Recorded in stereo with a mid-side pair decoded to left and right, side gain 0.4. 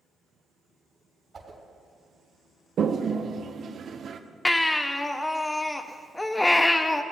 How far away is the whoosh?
About 3 m.